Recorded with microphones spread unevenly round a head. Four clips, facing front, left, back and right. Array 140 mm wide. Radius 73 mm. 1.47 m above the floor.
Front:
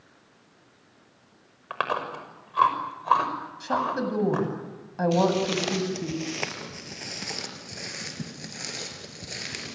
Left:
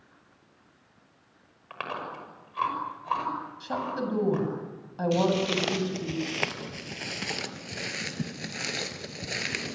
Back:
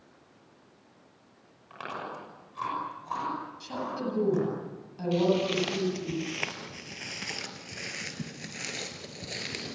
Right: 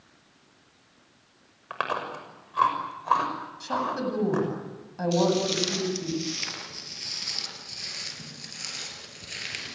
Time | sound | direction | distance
1.7 | chewing | 25° right | 6 m
3.6 | a woman speaking | straight ahead | 9 m
5.1 | footsteps | 50° left | 3 m